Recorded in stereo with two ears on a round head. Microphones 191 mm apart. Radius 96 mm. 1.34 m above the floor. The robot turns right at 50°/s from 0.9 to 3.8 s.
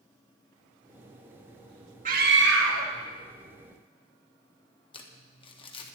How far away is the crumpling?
About 1.4 m.